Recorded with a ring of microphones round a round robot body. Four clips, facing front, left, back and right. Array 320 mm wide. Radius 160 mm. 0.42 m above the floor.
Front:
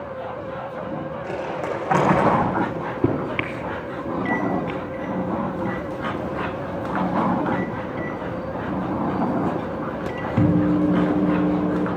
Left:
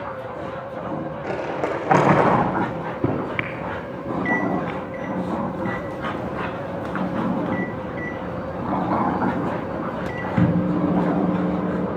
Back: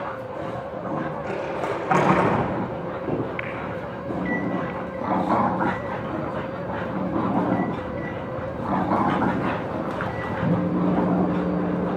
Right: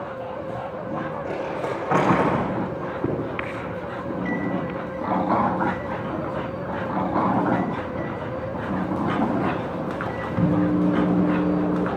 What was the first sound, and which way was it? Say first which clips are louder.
Crumpling: left 6 dB, even; 95° left.